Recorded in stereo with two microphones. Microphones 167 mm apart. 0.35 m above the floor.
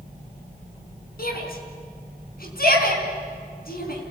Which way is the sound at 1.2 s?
65° left (ahead or behind).